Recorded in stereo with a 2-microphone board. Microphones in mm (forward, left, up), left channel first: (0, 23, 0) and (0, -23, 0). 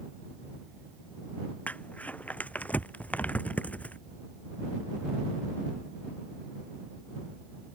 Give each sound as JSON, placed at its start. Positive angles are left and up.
{"t": 1.7, "sound": "crumpling", "side_deg": 35}